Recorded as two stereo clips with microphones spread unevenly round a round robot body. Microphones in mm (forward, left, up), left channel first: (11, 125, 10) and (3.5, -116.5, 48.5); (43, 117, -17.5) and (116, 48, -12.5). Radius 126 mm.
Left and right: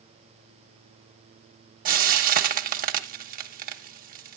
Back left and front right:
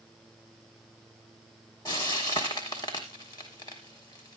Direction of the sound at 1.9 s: 150° right.